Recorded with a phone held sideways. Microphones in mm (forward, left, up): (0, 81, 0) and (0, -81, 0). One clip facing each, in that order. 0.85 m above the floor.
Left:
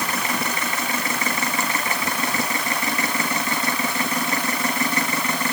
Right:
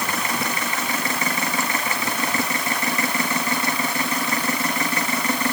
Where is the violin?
I don't hear a violin.